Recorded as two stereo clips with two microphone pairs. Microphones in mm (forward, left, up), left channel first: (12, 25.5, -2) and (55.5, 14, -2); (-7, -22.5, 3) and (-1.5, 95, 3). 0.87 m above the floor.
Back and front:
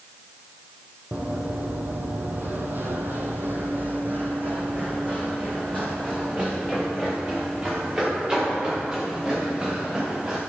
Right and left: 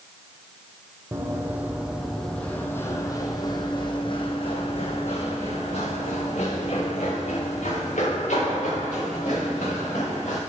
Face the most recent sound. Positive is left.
turn(degrees=-80)